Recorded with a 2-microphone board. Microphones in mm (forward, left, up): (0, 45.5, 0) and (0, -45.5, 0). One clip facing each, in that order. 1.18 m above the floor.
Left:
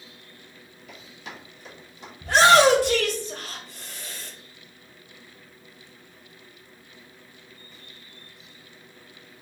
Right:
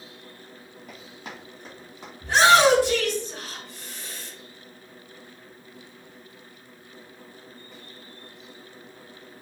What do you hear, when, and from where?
0.9 s running footsteps: 40° right (ahead or behind), 2 m; by 2.1 s 35° right (ahead or behind), 3 m
2.2 s a shout: 60° left (ahead or behind), 1.2 m